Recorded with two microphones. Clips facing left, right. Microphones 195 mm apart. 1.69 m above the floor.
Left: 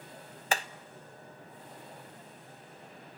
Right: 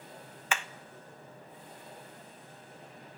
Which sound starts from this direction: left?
Hammering, at 0.5 s.